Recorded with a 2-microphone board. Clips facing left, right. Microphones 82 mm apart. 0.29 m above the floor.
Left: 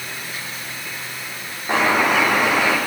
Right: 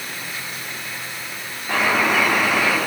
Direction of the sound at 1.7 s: 20° left (ahead or behind).